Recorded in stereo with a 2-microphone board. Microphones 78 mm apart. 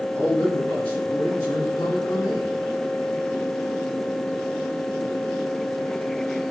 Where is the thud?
No thud in this recording.